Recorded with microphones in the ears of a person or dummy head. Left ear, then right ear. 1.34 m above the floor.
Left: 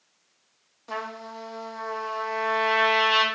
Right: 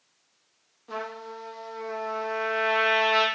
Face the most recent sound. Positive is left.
turn(degrees=25)  # may be behind; listen again after turning